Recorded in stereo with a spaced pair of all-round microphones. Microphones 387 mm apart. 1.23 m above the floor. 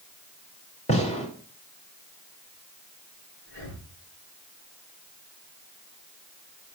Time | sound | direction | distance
0.9 | a gunshot | 15° left (ahead or behind) | 3 m
3.5 | breathing | 45° left (ahead or behind) | 6 m